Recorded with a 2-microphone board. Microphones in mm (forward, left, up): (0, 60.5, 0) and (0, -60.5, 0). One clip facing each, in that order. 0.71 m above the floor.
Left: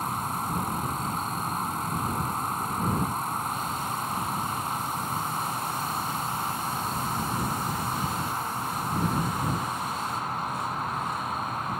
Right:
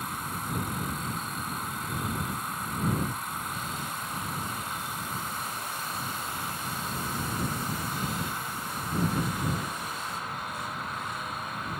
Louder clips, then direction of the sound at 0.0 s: Left 5 dB; 40° left (ahead or behind).